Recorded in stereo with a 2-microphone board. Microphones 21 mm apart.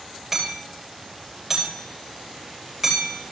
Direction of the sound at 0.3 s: 15° right (ahead or behind).